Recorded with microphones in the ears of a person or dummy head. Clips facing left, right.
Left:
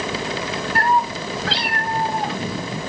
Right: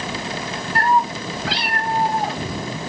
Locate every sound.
0.8 s a cat meowing: 25° right (ahead or behind), 1.8 m; by 2.7 s 5° left (ahead or behind), 1.8 m